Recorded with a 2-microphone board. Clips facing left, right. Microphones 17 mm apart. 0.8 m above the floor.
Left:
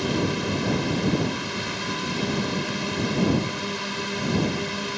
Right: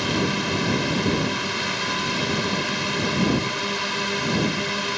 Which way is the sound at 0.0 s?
15° right (ahead or behind).